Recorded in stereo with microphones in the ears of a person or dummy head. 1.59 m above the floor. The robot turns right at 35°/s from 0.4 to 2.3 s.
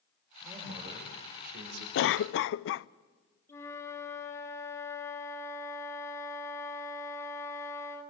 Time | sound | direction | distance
0.4 | a man speaking | 165° right | 5 m
1.9 | a cough | 65° left (ahead or behind) | 0.5 m
3.5 | a flute | 20° left (ahead or behind) | 1.5 m